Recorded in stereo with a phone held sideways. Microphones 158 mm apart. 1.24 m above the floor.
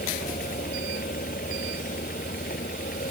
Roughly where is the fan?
Left.